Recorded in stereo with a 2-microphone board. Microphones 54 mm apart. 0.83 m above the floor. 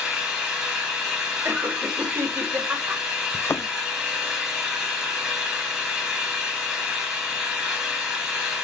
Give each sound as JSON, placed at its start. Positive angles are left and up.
{"t": 0.0, "sound": "an engine running", "side_deg": -15, "distance_m": 3.0}
{"t": 1.4, "sound": "laughter", "side_deg": -45, "distance_m": 3.0}
{"t": 3.3, "sound": "a thud", "side_deg": 55, "distance_m": 0.6}